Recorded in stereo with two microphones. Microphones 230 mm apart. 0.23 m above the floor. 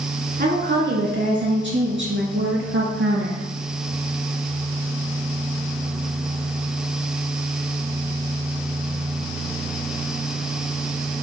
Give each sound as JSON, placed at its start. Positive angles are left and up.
{"t": 0.4, "sound": "a woman speaking", "side_deg": -45, "distance_m": 3.0}